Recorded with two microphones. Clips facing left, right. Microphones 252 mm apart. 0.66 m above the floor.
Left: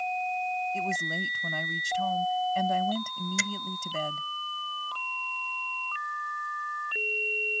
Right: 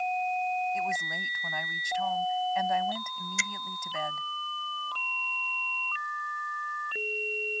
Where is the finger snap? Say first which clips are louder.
Left 8 dB; 75° left (ahead or behind).